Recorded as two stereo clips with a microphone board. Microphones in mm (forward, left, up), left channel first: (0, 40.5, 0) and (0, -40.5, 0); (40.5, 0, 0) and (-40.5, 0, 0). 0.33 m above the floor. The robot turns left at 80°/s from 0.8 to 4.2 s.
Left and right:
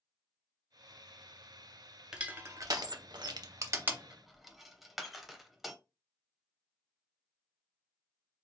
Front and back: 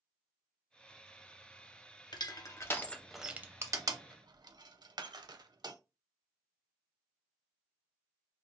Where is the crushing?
10° right, 0.5 m; by 5.8 s 175° right, 0.5 m.